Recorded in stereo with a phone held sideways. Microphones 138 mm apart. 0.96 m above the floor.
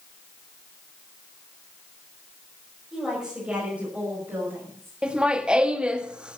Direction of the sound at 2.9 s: Centre (ahead or behind).